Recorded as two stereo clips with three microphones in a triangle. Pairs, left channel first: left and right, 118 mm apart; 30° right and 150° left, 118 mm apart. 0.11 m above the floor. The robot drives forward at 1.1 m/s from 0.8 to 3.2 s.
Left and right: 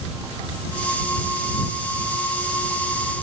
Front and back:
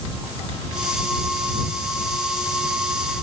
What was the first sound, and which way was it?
Only background noise.